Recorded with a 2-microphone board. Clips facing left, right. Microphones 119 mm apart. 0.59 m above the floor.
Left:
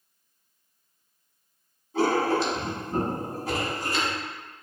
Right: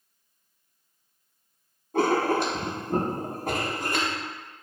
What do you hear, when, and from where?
1.9 s writing: 55° right (ahead or behind), 0.6 m